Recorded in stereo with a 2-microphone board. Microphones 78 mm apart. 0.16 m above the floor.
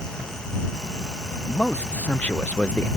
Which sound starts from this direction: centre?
A man speaking, at 1.5 s.